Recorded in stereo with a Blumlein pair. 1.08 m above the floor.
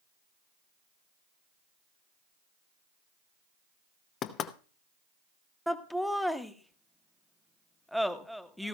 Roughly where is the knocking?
Ahead left.